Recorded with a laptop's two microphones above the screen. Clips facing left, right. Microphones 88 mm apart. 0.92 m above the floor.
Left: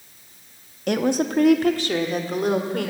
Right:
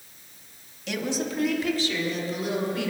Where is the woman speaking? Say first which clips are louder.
Left 8 dB; 50° left (ahead or behind), 1.0 m.